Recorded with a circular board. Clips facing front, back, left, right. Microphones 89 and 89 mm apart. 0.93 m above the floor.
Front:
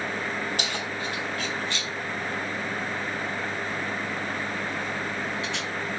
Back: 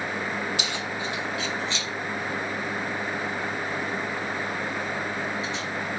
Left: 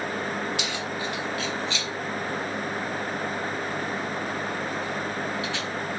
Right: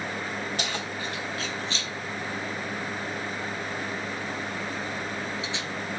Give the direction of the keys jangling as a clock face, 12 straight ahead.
1 o'clock.